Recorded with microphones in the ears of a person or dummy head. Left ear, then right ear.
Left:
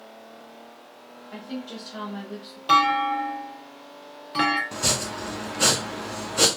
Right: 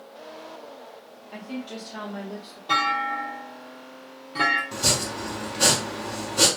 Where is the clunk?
60° left (ahead or behind), 0.9 m.